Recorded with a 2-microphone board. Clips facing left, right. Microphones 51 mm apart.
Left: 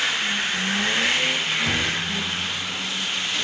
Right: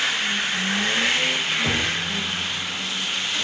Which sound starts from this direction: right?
Knocking, at 1.6 s.